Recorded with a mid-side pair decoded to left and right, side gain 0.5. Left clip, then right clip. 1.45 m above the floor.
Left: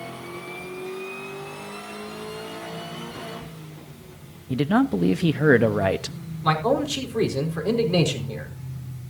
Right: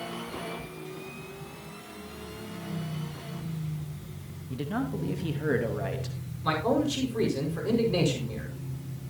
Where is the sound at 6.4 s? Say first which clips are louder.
Left 5 dB; 35° left, 4.5 m.